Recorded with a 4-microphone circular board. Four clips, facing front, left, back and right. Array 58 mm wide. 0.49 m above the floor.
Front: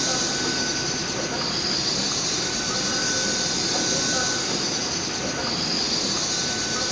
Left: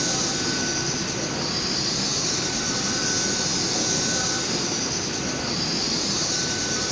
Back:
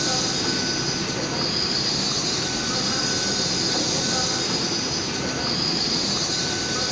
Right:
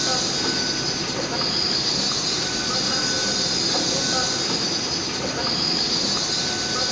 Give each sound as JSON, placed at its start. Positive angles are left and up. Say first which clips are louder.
{"t": 0.0, "sound": "an insect", "louder": "right 1 dB, back 1 dB", "azimuth_deg": -100, "distance_m": 1.1}